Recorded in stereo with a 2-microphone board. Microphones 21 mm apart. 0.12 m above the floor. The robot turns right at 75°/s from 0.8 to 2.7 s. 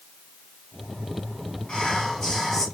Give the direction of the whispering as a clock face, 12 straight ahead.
9 o'clock.